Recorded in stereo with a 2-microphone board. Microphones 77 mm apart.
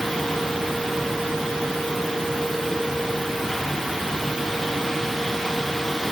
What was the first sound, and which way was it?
Only background noise.